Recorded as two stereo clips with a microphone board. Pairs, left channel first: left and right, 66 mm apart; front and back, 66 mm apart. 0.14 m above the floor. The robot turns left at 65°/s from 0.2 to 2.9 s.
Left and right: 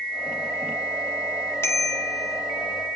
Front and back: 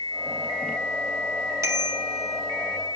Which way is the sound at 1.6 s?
140° left.